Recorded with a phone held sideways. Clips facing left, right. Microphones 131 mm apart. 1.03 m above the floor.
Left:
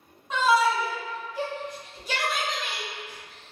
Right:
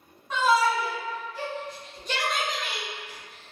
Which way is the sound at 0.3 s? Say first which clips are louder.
Left 1 dB; 20° left (ahead or behind).